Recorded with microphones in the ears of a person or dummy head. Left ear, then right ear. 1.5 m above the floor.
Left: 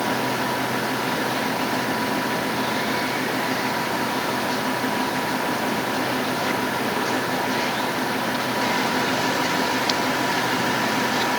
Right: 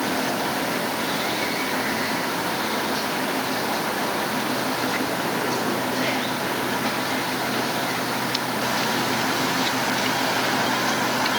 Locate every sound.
Only background noise.